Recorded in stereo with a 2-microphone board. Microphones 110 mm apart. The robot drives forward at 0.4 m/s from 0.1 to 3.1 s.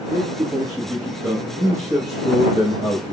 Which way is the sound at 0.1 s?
30° right (ahead or behind).